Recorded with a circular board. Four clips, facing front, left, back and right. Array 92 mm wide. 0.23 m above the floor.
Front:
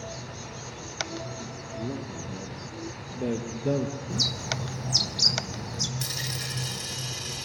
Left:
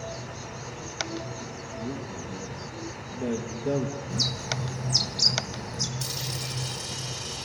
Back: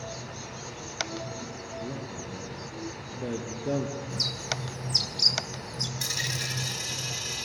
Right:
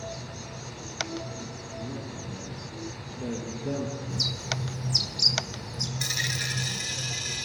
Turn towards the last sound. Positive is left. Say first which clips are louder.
# right 2 dB, back 1 dB
turn(degrees=-105)